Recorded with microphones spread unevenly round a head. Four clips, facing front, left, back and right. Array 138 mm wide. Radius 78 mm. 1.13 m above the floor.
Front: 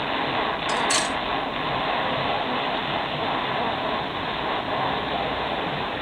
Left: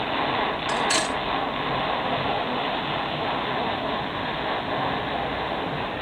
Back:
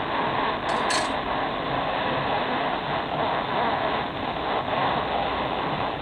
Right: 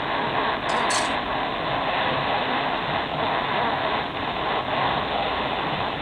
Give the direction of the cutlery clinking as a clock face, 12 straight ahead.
8 o'clock.